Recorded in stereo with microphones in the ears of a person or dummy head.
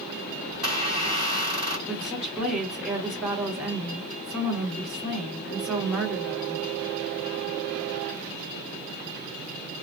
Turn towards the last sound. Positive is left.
turn(degrees=-5)  # may be behind; listen again after turning